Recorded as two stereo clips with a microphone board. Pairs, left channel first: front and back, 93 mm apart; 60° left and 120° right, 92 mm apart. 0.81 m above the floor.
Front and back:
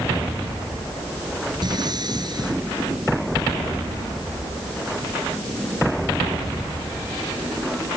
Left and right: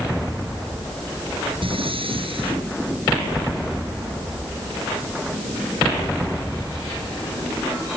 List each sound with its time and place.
1.6 s breathing: 140° right